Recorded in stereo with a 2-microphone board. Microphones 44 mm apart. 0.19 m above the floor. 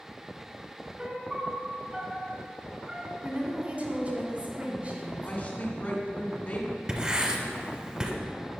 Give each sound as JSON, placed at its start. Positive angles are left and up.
{"t": 1.0, "sound": "a piano", "side_deg": -20, "distance_m": 0.9}
{"t": 3.2, "sound": "a woman speaking", "side_deg": -35, "distance_m": 1.9}
{"t": 5.2, "sound": "a woman speaking", "side_deg": 40, "distance_m": 1.4}
{"t": 6.9, "sound": "writing", "side_deg": -20, "distance_m": 0.9}